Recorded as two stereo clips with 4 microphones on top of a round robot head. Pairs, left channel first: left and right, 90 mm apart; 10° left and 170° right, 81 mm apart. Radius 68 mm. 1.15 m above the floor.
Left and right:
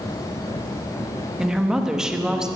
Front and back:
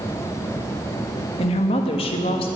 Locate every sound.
1.4 s a woman speaking: 5° right, 1.3 m